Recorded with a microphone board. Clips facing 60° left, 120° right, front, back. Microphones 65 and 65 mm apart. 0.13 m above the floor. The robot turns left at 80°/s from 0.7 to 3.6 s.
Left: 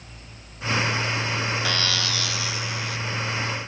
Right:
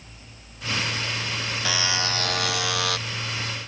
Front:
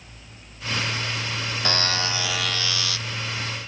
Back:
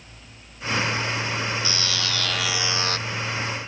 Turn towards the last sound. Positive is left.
turn(degrees=175)